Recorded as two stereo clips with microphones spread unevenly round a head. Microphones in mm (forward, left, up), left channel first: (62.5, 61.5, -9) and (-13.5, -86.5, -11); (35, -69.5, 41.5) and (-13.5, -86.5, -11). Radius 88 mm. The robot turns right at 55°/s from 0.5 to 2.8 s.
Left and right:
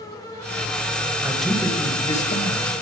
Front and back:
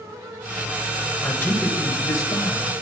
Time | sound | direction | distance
1.2 | a man speaking | 35° right | 6.5 m